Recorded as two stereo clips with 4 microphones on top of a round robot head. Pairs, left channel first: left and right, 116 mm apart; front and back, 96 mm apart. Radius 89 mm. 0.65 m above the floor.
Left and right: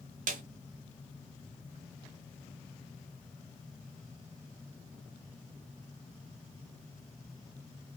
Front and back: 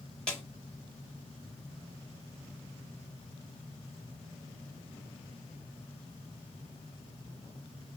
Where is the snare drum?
85° right, 0.7 m.